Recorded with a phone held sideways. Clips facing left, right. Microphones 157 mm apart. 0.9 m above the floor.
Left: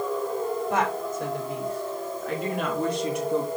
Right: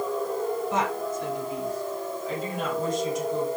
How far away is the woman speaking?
About 5.5 m.